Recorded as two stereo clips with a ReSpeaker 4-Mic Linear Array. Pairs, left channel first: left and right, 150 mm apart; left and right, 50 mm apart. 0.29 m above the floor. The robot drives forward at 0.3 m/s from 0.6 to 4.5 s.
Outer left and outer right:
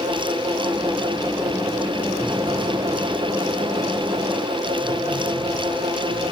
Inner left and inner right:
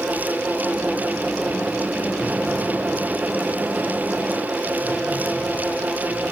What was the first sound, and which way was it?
Only background noise.